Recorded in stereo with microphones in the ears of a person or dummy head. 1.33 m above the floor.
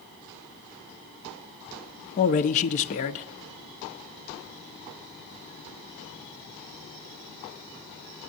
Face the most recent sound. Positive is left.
turn(degrees=45)  # may be behind; listen again after turning